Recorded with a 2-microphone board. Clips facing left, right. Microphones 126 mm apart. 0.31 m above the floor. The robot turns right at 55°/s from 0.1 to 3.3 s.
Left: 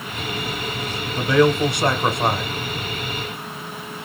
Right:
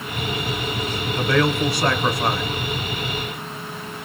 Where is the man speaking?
15° left (ahead or behind), 1.0 m; by 2.5 s 25° left (ahead or behind), 1.0 m.